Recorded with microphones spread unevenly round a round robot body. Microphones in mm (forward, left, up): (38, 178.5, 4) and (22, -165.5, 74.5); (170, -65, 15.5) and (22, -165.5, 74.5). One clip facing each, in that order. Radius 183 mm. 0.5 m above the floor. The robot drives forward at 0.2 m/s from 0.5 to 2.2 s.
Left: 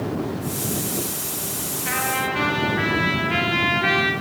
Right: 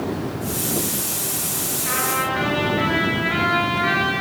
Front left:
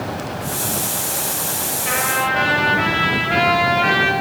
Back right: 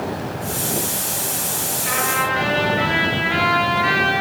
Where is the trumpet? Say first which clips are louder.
Even, front left 1 dB; 95° left, 7.5 m.